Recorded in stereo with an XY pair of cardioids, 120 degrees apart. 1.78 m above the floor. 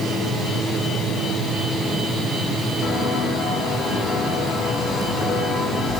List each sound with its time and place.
2.8 s footsteps: 65° left, 6 m; by 6.0 s 45° left, 6 m